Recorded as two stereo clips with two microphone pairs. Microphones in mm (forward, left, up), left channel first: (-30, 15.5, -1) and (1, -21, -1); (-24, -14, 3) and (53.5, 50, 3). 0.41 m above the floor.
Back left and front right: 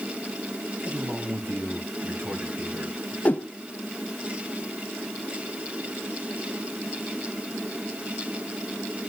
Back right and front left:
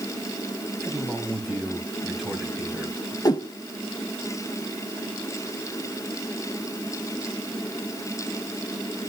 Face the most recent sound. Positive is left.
turn(degrees=180)